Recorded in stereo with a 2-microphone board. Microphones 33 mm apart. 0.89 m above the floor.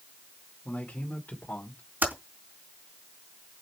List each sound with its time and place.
0.7 s a man speaking: 50° left (ahead or behind), 2.5 m; by 1.8 s 65° left (ahead or behind), 2.5 m
2.0 s typing on a keyboard: 75° right (ahead or behind), 3.5 m